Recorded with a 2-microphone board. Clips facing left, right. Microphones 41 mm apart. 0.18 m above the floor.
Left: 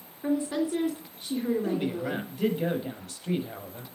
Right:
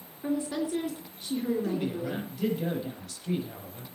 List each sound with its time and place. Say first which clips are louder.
0.2 s a woman speaking: left 3 dB; 20° left (ahead or behind), 3 m
1.6 s a man speaking: left 2 dB; 35° left (ahead or behind), 6 m